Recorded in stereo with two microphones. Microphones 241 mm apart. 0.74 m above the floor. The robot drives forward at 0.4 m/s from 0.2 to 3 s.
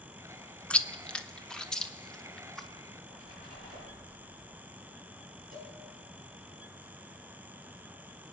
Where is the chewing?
5° left (ahead or behind), 0.6 m.